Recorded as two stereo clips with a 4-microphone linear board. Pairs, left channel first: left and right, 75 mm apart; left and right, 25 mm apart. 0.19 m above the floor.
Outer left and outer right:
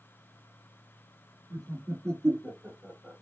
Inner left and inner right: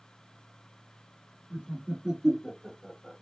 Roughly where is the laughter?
Right.